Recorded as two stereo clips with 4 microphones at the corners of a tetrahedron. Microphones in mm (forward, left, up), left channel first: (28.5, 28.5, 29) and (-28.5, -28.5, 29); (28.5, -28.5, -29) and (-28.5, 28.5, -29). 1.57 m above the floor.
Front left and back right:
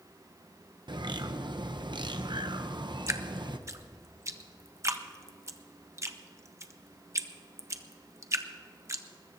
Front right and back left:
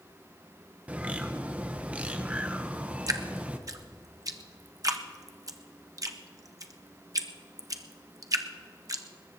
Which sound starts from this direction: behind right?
A bird, at 0.9 s.